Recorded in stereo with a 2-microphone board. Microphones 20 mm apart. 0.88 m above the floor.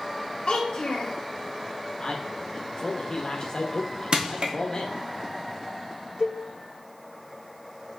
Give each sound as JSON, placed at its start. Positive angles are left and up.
{"t": 0.5, "sound": "a child speaking", "side_deg": 75, "distance_m": 1.6}
{"t": 2.0, "sound": "a man speaking", "side_deg": 40, "distance_m": 0.9}
{"t": 4.1, "sound": "crushing", "side_deg": -55, "distance_m": 0.9}
{"t": 6.2, "sound": "a cowbell", "side_deg": -55, "distance_m": 1.9}